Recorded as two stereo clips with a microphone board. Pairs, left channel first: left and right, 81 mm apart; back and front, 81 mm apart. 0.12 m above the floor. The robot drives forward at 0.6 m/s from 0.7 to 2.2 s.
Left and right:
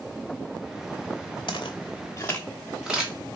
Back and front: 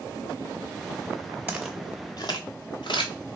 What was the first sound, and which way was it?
Footsteps, 70° left.